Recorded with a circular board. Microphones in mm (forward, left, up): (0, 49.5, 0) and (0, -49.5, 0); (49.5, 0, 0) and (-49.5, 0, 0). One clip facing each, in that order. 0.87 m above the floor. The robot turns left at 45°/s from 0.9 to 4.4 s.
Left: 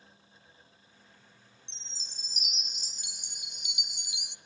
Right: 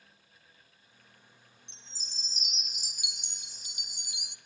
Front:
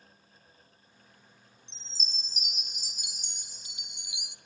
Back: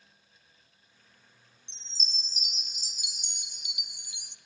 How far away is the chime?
About 0.9 m.